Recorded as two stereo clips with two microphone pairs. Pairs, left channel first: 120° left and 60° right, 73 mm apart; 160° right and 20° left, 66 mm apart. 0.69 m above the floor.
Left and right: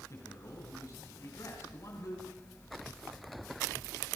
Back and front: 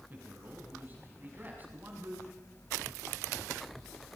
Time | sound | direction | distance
0.1 | a man speaking | 80° left | 6 m